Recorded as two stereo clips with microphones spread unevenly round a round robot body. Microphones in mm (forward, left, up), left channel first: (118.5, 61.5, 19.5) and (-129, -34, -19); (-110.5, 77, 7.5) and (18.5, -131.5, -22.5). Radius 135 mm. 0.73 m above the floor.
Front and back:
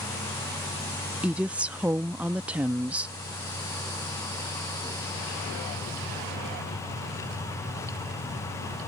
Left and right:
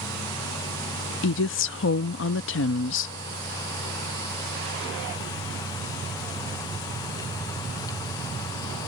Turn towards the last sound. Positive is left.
turn(degrees=130)